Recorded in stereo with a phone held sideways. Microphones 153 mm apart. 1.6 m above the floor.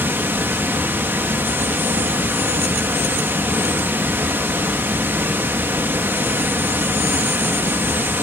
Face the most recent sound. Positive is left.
turn(degrees=-15)  # may be behind; listen again after turning